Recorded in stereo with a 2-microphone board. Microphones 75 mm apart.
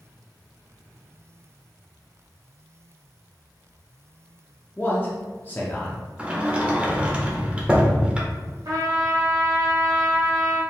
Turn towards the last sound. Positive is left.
turn(degrees=-55)  # may be behind; listen again after turning